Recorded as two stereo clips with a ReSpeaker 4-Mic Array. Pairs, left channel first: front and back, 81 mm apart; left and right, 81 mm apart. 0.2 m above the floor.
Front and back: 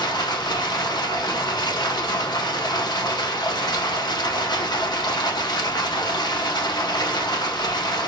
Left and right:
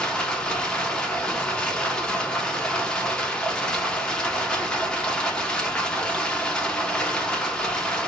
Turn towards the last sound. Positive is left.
turn(degrees=15)